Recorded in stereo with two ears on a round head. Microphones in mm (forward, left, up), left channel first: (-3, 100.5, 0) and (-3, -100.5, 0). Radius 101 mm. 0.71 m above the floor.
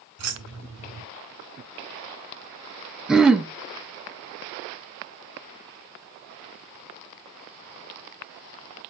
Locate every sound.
0.2 s keys jangling: 75° right (ahead or behind), 3 m
3.1 s throat clearing: 5° right (ahead or behind), 0.8 m